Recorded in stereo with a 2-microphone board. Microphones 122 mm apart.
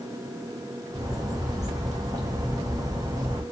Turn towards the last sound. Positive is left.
turn(degrees=-30)  # may be behind; listen again after turning